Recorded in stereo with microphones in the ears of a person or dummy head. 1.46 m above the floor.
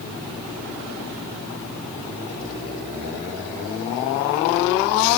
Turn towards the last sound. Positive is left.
No sound to turn to.